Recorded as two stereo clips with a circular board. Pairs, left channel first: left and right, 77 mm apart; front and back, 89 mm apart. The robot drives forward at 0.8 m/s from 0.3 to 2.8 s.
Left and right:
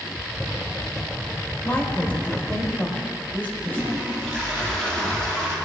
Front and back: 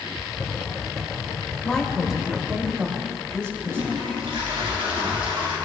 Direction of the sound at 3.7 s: 170° left.